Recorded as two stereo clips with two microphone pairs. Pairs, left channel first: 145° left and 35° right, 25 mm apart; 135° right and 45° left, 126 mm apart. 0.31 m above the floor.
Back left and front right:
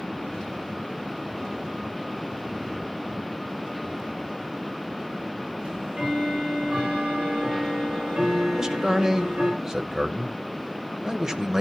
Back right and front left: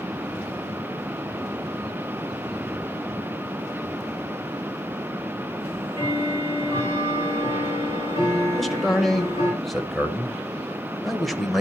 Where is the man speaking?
50° right, 0.9 m.